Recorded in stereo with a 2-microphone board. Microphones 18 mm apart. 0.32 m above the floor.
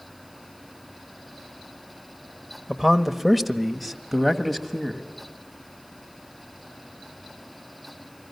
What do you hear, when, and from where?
2.7 s a man speaking: 5° right (ahead or behind), 1.0 m; by 5.1 s 10° left (ahead or behind), 1.9 m